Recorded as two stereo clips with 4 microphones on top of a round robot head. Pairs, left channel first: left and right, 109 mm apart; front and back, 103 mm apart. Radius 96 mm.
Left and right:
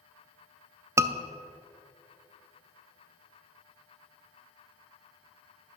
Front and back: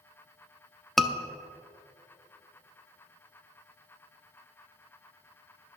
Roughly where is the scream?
Right.